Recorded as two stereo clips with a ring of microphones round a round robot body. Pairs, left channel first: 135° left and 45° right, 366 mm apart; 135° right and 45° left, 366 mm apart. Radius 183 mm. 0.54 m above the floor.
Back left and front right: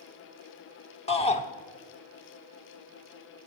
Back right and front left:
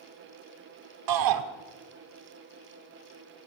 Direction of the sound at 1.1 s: 65° left.